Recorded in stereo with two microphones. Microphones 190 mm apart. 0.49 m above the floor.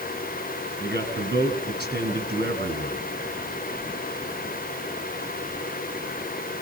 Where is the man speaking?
60° right (ahead or behind), 5 m.